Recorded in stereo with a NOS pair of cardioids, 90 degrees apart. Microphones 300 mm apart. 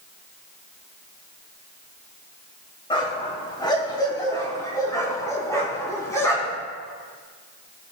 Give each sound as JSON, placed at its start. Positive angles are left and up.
{"t": 2.9, "sound": "a dog barking", "azimuth_deg": 15, "distance_m": 3.0}